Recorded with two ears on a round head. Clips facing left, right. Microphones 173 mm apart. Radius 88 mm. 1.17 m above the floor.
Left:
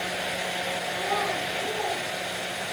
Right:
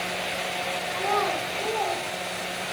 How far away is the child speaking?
About 4 m.